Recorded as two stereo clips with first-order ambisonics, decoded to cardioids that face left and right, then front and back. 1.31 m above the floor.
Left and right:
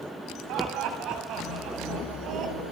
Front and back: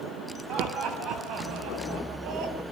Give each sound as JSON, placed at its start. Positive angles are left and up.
{"t": 0.5, "sound": "laughter", "azimuth_deg": -125, "distance_m": 7.0}